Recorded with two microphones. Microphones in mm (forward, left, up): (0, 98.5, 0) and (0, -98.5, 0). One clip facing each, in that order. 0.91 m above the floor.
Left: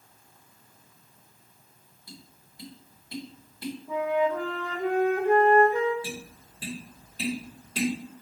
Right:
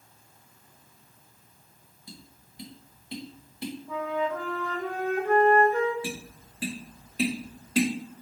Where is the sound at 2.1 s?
20° right (ahead or behind), 0.9 m.